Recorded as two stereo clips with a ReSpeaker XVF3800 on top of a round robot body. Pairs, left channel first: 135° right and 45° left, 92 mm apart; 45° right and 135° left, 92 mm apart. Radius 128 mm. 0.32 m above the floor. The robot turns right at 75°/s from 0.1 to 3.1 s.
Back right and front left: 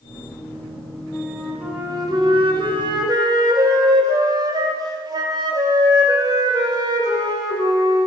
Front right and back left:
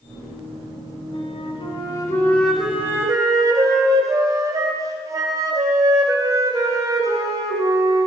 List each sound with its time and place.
1.1 s a flute: 60° right, 1.7 m; by 8.1 s 85° left, 1.7 m